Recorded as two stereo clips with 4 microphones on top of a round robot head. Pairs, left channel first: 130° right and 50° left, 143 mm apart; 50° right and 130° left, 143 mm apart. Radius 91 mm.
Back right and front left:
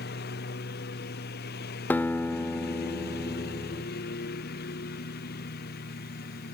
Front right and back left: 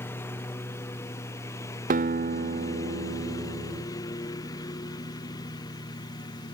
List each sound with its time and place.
0.0 s a lawn mower: 125° right; by 6.5 s 115° right
1.9 s a guitar: 155° left